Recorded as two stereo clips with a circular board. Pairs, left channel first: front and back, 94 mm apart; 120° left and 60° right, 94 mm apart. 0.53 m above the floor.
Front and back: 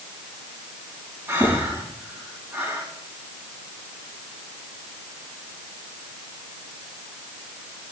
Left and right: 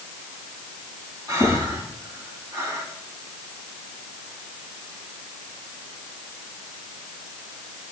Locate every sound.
1.3 s breathing: 115° right, 4.5 m